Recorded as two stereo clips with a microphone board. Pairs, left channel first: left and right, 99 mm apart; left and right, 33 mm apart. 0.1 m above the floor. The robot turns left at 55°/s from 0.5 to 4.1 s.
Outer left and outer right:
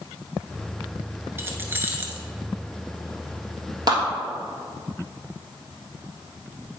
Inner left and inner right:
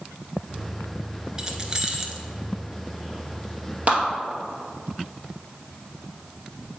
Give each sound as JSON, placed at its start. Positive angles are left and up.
{"t": 1.4, "sound": "keys jangling", "side_deg": -25, "distance_m": 0.9}
{"t": 3.9, "sound": "a clap", "side_deg": -45, "distance_m": 1.9}